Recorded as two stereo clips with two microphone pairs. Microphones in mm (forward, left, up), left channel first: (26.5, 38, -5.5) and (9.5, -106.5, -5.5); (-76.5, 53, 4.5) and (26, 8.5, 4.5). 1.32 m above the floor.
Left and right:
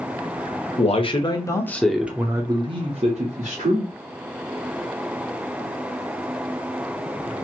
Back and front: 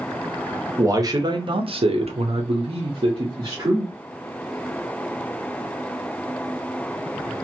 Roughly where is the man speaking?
Ahead left.